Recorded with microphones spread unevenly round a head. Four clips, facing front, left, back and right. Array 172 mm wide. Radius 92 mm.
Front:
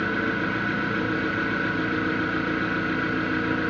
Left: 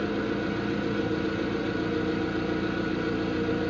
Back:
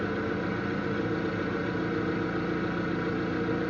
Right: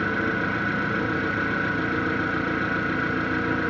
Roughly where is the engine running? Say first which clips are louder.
Right 3 dB, front 4 dB; ahead right.